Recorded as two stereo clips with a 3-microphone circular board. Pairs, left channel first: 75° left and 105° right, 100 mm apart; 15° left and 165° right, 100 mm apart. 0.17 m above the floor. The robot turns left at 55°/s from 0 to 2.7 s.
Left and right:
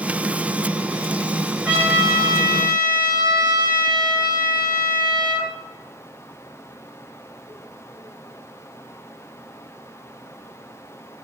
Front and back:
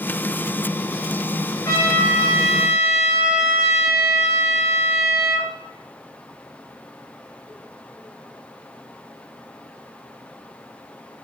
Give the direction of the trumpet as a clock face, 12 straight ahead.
1 o'clock.